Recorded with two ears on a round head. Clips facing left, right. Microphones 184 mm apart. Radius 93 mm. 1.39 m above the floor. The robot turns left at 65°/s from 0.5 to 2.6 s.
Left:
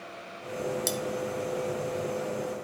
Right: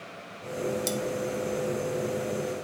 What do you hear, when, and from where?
0.9 s cutlery clinking: 5° left (ahead or behind), 0.6 m; by 1.0 s 10° left (ahead or behind), 0.6 m